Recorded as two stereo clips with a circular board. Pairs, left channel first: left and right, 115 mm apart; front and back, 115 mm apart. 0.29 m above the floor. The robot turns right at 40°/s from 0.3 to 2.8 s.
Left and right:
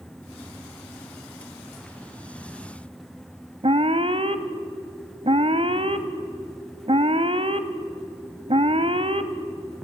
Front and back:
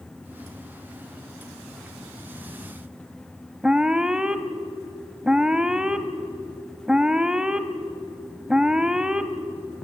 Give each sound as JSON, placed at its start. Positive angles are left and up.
{"t": 3.6, "sound": "an alarm", "azimuth_deg": -100, "distance_m": 1.0}